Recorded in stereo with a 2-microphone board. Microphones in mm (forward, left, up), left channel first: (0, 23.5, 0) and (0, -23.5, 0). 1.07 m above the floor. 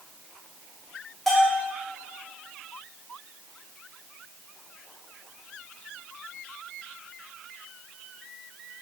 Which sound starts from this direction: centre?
A bell, at 1.3 s.